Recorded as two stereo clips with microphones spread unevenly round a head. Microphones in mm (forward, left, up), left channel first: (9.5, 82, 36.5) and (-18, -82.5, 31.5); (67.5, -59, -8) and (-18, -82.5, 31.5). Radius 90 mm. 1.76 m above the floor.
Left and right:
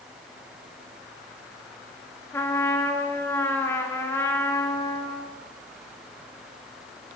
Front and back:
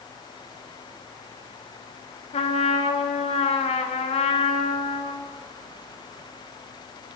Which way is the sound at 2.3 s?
5° left.